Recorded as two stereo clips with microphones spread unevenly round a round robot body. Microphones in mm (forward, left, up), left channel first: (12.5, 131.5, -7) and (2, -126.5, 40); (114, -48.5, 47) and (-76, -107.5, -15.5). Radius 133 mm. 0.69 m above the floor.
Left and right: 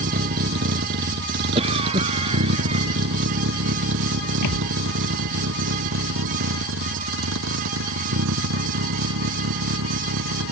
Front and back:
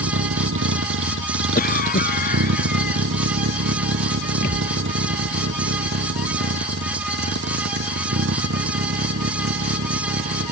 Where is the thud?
70° left.